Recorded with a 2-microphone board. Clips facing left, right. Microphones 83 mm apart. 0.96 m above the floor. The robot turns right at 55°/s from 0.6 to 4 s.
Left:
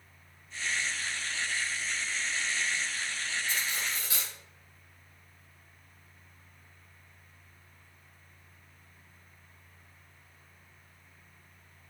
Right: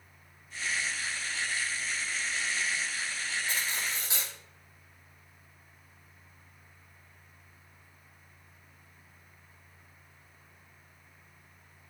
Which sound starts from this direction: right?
Cutlery clinking, at 3.5 s.